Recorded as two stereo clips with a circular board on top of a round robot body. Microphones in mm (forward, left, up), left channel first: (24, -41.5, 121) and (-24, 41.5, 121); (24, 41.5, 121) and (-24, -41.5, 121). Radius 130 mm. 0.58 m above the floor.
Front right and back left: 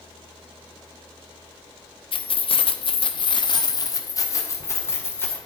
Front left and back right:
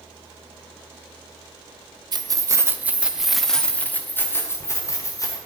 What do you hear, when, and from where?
2.1 s keys jangling: 80° right, 0.9 m; by 5.4 s 5° left, 1.8 m